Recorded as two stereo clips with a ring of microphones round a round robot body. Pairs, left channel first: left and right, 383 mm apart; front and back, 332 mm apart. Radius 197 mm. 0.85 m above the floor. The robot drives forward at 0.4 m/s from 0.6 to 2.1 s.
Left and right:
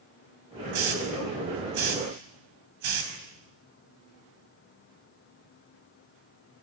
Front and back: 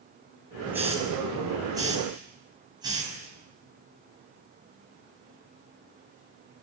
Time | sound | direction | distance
0.7 | a hiss | 95° right | 5.5 m